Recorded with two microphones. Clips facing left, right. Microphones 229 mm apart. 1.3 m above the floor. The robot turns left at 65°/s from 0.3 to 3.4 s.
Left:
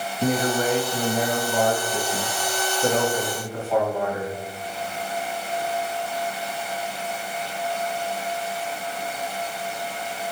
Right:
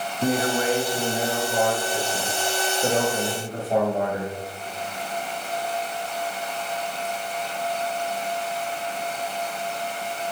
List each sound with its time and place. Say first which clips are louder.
0.2 s a man speaking: even; 160° left, 1.6 m; by 4.3 s 40° right, 1.6 m